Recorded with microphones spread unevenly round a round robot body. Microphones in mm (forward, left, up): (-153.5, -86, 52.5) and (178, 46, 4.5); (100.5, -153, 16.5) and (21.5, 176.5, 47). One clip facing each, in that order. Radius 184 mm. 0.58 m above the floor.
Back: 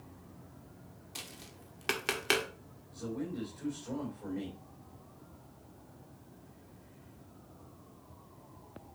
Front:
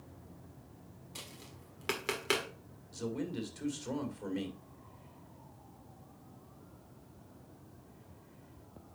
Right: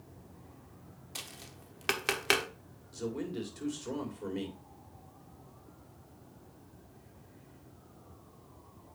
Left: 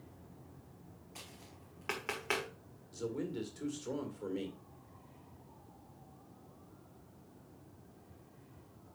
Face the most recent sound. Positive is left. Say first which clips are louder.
# front 1 dB, right 2 dB
turn(degrees=10)